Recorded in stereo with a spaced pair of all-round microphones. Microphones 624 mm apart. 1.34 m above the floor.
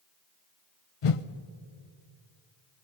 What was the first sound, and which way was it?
A whoosh, 55° left (ahead or behind).